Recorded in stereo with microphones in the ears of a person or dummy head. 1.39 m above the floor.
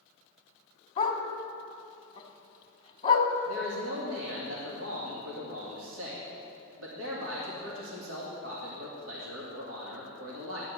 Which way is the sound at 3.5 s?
85° right.